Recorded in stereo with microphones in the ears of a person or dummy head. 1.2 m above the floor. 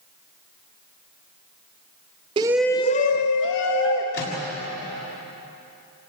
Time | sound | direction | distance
2.4 | a shout | 25° right (ahead or behind) | 0.7 m
4.1 | a microwave | 60° left (ahead or behind) | 7 m